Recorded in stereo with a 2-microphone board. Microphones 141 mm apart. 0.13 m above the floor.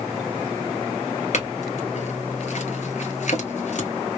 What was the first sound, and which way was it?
A clink, 55° left (ahead or behind).